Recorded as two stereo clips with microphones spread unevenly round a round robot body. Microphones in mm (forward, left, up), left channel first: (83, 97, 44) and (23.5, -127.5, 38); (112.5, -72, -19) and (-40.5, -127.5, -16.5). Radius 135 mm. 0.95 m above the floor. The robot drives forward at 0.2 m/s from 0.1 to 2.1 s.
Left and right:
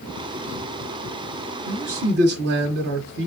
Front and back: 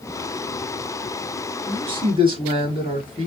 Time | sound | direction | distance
1.7 | a man speaking | 100° right | 1.4 m